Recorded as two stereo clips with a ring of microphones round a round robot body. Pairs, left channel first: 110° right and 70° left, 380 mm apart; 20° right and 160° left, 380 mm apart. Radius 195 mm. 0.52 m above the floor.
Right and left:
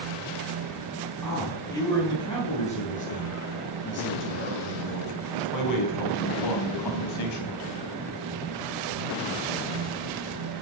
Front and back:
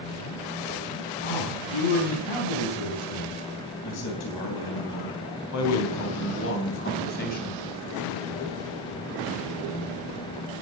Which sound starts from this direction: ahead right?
A man speaking, at 1.2 s.